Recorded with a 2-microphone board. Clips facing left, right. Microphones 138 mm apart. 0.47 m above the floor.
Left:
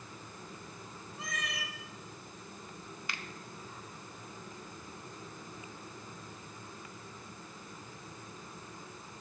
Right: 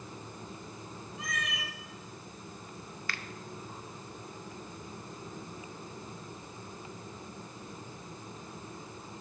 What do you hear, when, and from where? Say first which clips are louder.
1.2 s a cat meowing: right 2 dB; 30° left (ahead or behind), 1.7 m
3.1 s a finger snap: right 2 dB; 20° left (ahead or behind), 0.5 m